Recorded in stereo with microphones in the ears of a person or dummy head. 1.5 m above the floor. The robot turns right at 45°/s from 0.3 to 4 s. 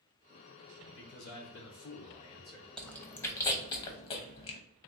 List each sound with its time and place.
0.8 s a man speaking: 80° left, 1.1 m; by 2.7 s 165° left, 1.1 m
2.8 s chewing: 5° right (ahead or behind), 0.7 m; by 4.6 s 25° left (ahead or behind), 0.7 m